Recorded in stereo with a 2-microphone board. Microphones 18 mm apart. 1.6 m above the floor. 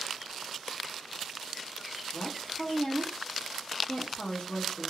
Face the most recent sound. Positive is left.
turn(degrees=55)  # may be behind; listen again after turning